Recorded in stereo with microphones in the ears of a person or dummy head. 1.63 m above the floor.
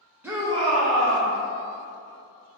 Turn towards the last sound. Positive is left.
turn(degrees=-75)  # may be behind; listen again after turning